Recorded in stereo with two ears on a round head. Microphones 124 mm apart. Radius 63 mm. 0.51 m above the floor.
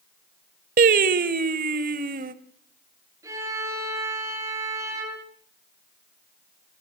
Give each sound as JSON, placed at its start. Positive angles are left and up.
{"t": 0.8, "sound": "singing", "side_deg": -70, "distance_m": 1.0}
{"t": 3.2, "sound": "a violin", "side_deg": -25, "distance_m": 8.0}